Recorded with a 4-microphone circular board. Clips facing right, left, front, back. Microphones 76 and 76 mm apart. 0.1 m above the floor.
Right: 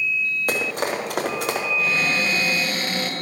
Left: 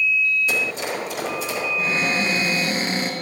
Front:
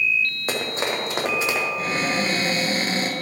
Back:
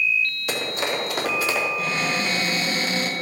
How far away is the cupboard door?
About 1.5 m.